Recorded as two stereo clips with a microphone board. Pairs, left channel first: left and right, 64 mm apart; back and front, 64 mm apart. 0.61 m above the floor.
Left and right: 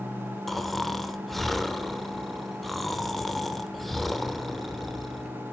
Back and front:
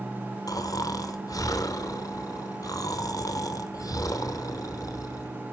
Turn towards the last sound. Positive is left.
turn(degrees=180)